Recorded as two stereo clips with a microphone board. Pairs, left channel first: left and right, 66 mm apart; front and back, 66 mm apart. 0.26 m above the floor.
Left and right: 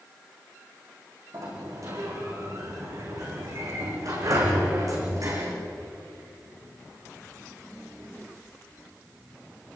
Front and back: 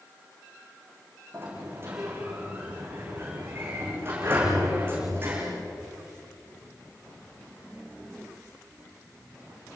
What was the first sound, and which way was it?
A sliding door, 125° right.